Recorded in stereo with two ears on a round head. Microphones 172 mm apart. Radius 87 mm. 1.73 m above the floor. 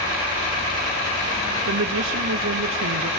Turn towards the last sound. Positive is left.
turn(degrees=-75)  # may be behind; listen again after turning